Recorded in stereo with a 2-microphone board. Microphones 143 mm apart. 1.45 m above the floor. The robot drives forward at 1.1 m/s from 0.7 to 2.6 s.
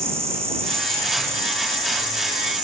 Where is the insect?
20° right (ahead or behind), 6.5 m; by 2.6 s 25° right (ahead or behind), 4.5 m.